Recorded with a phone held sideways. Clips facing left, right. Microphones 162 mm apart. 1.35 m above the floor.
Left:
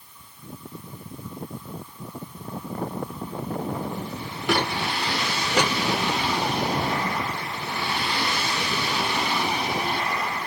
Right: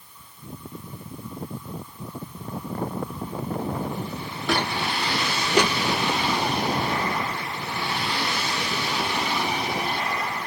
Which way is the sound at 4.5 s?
15° left (ahead or behind).